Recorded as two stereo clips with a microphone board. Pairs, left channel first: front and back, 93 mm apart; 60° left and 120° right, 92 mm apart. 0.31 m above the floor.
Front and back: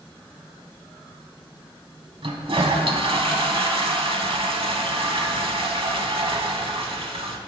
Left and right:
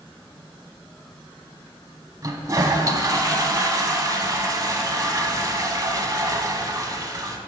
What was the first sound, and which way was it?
A toilet flushing, 170° right.